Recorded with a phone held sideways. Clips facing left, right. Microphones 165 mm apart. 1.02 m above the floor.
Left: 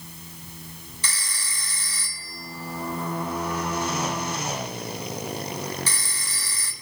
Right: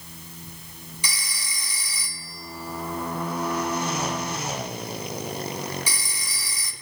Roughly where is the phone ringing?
Centre.